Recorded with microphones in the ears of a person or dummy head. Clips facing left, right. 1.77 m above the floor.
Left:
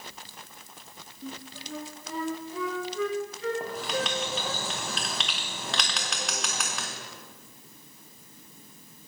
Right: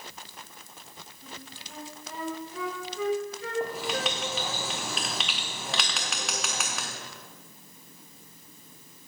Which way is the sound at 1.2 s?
70° left (ahead or behind).